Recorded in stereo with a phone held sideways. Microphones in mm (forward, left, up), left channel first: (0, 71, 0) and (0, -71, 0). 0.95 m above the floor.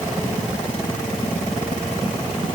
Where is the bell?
No bell in this recording.